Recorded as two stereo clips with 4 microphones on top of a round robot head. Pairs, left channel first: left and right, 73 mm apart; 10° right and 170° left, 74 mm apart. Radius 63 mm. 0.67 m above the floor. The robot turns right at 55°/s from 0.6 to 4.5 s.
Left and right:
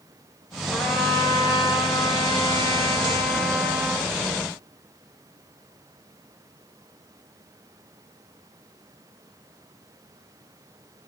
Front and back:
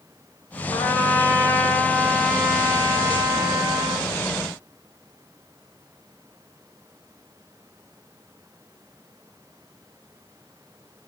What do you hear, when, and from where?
0.7 s a trumpet: straight ahead, 2.5 m; by 4.1 s 175° right, 2.5 m